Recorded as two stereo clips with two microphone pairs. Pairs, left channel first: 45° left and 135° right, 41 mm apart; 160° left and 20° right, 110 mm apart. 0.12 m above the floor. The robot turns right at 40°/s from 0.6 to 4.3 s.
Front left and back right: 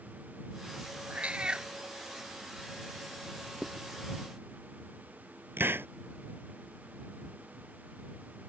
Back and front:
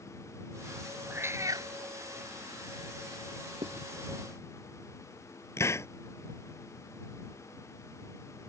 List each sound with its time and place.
1.1 s a cat meowing: 90° right; by 1.7 s 65° right
3.6 s writing: 50° right; by 3.9 s 40° right
5.6 s a hiss: 140° right